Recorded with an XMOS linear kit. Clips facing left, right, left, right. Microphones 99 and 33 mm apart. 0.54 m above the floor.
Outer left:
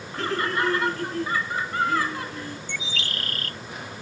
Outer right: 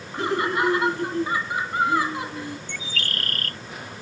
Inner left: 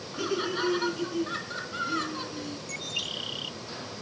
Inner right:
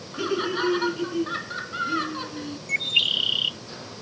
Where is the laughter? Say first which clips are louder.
Outer right 3 dB, inner right 4 dB; 15° right (ahead or behind).